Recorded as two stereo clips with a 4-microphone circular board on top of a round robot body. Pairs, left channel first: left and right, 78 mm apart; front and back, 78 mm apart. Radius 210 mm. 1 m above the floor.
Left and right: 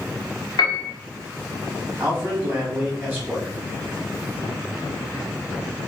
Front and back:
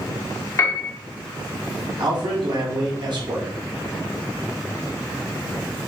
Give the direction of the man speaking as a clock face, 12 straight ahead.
5 o'clock.